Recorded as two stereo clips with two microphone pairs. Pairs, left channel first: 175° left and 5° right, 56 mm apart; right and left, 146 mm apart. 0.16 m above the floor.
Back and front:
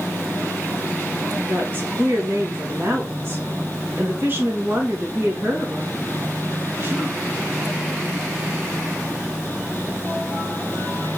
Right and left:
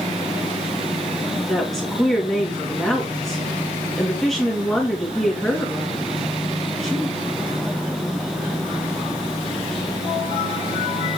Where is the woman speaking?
Straight ahead, 1.7 m.